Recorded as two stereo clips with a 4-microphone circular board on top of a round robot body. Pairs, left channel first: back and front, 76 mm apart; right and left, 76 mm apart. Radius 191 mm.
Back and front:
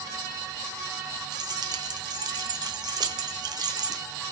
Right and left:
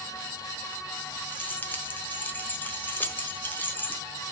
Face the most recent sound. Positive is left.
turn(degrees=-25)